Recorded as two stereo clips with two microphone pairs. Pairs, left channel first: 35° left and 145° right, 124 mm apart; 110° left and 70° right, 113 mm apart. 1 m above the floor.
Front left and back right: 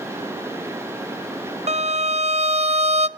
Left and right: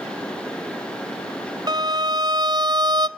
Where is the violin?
115° right, 0.7 m.